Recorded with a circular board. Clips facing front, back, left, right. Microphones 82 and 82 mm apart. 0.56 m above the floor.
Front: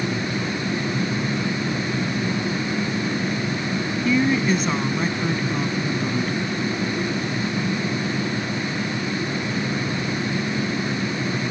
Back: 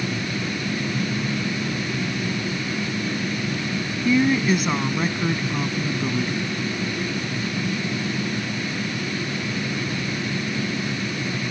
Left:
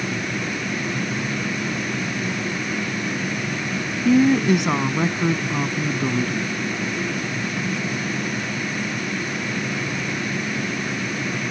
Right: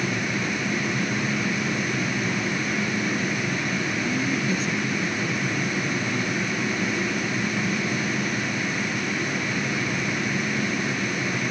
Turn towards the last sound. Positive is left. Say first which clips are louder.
# back 1 dB, left 13 dB
turn(degrees=100)